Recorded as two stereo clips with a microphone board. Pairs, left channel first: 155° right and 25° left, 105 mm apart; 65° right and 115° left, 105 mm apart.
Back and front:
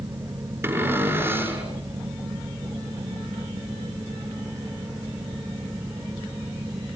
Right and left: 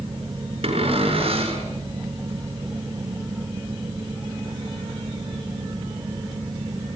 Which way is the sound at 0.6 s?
90° left.